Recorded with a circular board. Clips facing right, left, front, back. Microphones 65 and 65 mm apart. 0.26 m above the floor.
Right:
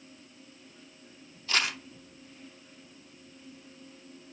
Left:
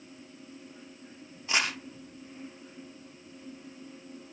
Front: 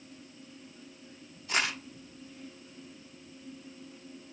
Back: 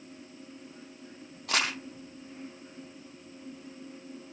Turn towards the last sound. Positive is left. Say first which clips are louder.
# even, back 1 dB
turn(degrees=160)